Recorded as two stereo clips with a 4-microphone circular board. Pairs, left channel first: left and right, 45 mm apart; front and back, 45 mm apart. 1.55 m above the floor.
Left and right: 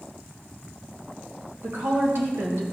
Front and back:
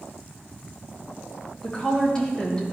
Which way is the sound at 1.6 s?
70° right.